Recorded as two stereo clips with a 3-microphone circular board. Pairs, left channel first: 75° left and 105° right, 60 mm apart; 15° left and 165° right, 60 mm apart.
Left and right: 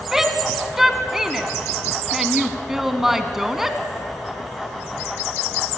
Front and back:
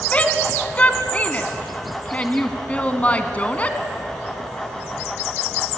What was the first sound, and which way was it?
A shout, 25° right.